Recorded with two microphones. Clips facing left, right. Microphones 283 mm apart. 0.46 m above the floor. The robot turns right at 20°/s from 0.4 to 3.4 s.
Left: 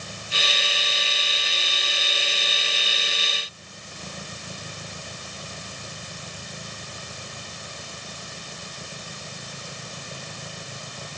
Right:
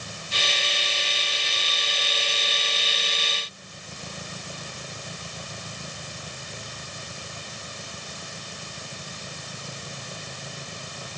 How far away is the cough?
No cough in this recording.